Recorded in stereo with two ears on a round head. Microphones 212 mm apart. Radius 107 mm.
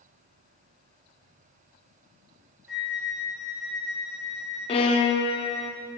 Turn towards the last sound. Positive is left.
turn(degrees=25)  # may be behind; listen again after turning